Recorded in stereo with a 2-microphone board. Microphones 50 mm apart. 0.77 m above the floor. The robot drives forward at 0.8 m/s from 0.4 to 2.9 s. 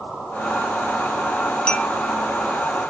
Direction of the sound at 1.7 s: 20° left (ahead or behind).